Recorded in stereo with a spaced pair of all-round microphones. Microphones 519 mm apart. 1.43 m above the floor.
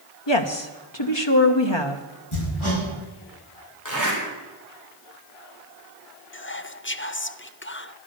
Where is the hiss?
I don't hear a hiss.